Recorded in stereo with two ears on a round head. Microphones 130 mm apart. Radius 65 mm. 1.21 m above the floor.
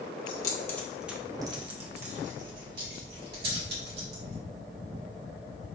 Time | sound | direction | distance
0.3 | keys jangling | 30° left (ahead or behind) | 0.9 m